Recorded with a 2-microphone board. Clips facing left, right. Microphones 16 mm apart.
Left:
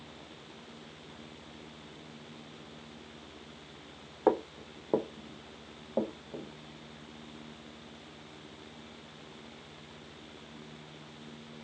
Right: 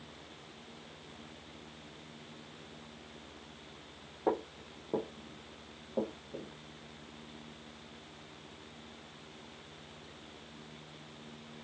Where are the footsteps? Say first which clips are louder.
Left 5 dB; 60° left (ahead or behind), 0.5 m; by 6.5 s 50° left (ahead or behind), 1.3 m.